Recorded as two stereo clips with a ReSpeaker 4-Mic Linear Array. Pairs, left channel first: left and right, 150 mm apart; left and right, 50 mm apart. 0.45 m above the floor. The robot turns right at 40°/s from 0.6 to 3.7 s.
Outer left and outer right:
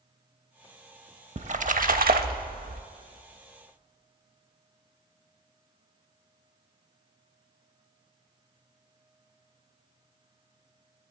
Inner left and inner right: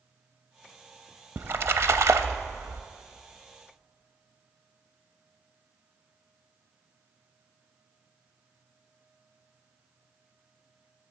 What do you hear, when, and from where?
1.4 s a splash: 130° right, 0.5 m; by 2.8 s 75° right, 0.5 m